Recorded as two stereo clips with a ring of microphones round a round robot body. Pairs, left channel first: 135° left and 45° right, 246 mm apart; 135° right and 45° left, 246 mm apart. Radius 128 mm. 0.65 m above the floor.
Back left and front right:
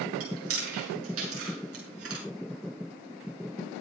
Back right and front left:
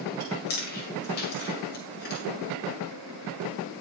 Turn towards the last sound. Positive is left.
turn(degrees=-80)